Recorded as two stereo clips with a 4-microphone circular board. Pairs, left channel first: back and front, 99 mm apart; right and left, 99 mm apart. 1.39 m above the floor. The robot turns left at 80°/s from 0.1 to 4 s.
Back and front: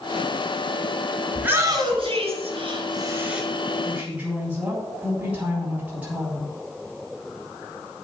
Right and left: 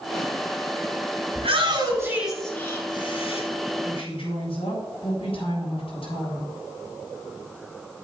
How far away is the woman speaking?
About 7 m.